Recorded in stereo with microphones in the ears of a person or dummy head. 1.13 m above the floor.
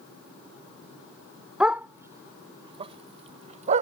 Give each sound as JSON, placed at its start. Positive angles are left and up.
{"t": 1.6, "sound": "a dog barking", "side_deg": -5}